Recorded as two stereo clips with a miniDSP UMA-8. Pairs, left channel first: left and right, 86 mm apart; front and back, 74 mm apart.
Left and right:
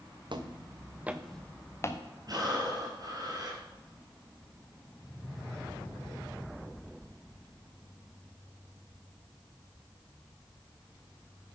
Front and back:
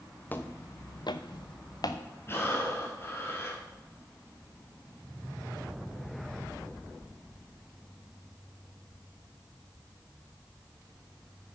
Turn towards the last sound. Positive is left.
turn(degrees=-55)